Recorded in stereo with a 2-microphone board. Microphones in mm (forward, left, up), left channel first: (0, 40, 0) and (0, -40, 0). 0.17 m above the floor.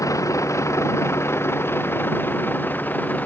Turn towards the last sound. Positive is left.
turn(degrees=20)  # may be behind; listen again after turning